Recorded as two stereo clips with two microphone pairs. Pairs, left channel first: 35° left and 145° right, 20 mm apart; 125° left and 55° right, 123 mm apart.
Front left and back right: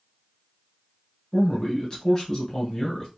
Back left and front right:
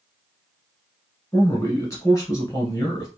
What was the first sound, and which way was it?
A man speaking, 75° left.